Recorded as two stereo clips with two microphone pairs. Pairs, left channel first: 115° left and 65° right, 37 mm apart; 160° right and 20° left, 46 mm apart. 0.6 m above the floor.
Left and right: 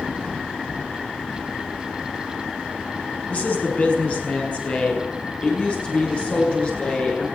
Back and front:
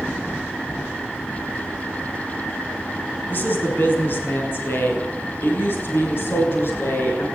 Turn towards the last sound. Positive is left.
turn(degrees=165)